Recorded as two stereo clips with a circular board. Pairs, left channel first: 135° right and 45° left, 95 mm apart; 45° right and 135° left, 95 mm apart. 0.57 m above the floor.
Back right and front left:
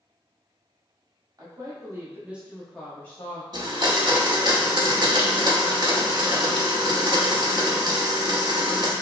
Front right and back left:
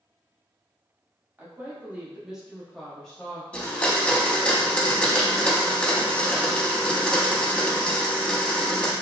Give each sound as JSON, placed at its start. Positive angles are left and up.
{"t": 1.4, "sound": "a woman speaking", "azimuth_deg": 70, "distance_m": 0.9}
{"t": 3.5, "sound": "a blender", "azimuth_deg": 25, "distance_m": 0.5}